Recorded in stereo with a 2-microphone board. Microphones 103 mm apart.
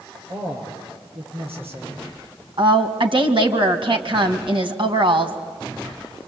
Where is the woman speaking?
60° right (ahead or behind), 2.5 m.